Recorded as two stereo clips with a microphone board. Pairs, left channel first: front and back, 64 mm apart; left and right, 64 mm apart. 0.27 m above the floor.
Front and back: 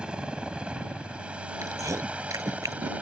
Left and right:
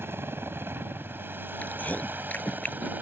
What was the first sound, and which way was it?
A helicopter, 110° right.